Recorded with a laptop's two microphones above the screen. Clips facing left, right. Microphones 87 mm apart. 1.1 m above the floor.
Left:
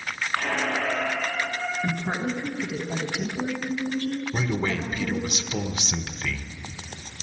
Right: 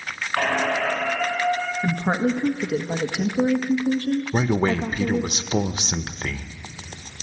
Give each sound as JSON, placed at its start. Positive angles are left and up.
{"t": 0.4, "sound": "a squeak", "side_deg": -85, "distance_m": 4.5}
{"t": 1.8, "sound": "a woman speaking", "side_deg": -50, "distance_m": 1.4}
{"t": 4.3, "sound": "a man speaking", "side_deg": -40, "distance_m": 0.7}